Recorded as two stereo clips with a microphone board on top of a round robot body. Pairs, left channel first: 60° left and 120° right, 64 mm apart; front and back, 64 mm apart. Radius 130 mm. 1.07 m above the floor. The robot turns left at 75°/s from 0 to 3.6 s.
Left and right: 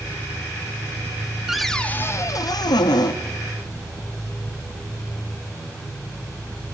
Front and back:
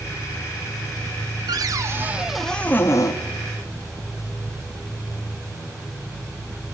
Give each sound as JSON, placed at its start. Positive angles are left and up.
{"t": 1.5, "sound": "a cupboard door", "azimuth_deg": 160, "distance_m": 1.3}